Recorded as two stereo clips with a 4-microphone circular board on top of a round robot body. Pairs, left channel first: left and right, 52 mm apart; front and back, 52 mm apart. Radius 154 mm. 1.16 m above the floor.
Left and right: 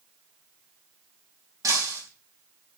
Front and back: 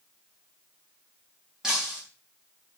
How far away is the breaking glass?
About 4.5 m.